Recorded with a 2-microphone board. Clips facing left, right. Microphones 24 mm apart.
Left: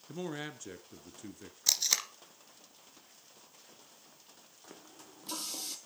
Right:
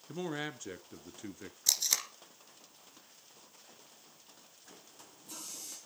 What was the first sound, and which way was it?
A man speaking, 10° right (ahead or behind).